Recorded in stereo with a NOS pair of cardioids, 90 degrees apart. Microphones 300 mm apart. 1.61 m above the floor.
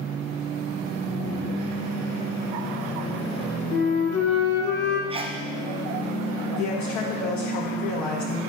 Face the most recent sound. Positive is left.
turn(degrees=70)